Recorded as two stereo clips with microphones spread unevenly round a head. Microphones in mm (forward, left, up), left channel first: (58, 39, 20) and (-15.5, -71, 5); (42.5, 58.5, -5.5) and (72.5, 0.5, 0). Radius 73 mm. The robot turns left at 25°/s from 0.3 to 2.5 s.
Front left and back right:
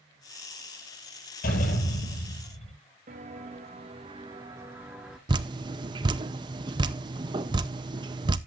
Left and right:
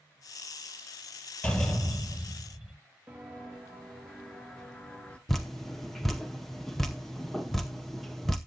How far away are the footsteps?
About 1.7 m.